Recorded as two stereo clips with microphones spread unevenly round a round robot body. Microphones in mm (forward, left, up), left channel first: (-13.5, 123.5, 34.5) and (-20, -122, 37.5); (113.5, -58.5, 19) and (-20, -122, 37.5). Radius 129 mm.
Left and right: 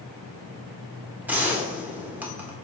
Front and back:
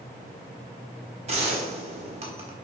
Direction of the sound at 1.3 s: 170° right.